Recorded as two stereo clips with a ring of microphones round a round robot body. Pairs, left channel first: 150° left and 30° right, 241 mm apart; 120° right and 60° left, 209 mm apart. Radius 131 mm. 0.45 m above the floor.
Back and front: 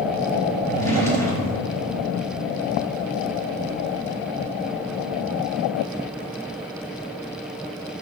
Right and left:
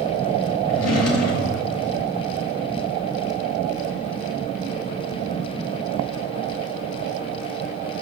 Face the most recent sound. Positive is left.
turn(degrees=-130)